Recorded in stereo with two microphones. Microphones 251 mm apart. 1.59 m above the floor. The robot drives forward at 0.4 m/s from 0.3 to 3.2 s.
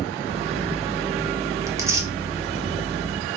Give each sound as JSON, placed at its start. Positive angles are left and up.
{"t": 1.7, "sound": "tearing paper", "side_deg": -10, "distance_m": 0.9}